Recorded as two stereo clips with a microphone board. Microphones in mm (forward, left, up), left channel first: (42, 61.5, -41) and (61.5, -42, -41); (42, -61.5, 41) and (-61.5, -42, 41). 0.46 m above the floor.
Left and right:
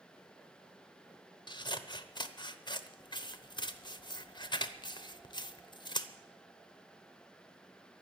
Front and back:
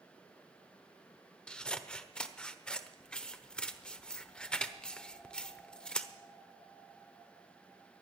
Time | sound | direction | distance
1.5 | scissors | 70° left | 0.8 m